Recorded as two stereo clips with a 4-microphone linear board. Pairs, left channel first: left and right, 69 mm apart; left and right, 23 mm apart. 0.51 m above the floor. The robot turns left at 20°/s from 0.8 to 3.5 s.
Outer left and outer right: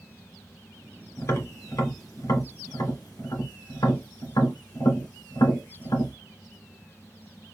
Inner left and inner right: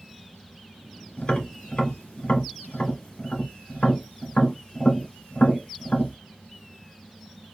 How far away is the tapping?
About 1.7 m.